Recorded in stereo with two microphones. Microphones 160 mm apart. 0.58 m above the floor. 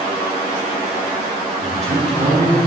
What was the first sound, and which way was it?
A man speaking, 45° right (ahead or behind).